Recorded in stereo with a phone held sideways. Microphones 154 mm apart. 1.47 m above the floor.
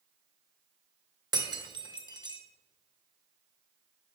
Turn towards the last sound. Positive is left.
turn(degrees=-30)  # may be behind; listen again after turning